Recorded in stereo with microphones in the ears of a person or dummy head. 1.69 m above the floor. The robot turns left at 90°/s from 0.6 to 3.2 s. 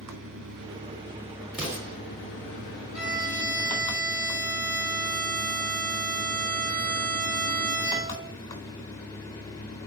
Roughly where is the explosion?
Centre.